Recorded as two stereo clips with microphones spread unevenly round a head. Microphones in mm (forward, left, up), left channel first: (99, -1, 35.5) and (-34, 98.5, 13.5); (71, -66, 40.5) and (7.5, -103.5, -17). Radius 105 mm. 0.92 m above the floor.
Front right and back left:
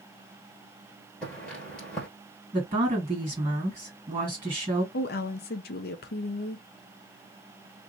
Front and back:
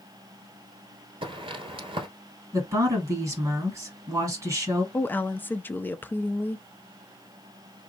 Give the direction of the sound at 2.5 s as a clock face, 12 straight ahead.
5 o'clock.